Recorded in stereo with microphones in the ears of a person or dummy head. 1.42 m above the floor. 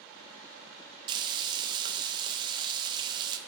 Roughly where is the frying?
Right.